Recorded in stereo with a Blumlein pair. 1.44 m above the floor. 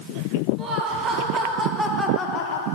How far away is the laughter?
About 2.5 m.